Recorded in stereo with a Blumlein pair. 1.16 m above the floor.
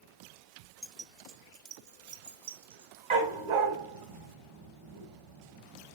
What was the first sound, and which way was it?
Keys jangling, straight ahead.